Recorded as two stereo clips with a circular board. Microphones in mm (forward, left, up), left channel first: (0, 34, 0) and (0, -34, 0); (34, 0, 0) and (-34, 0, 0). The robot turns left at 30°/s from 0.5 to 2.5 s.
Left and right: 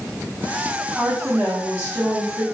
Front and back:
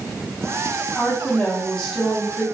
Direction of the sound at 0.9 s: 45° right.